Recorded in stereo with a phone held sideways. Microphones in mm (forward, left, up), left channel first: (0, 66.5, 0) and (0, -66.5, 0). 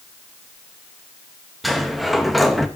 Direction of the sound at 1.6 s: Centre (ahead or behind).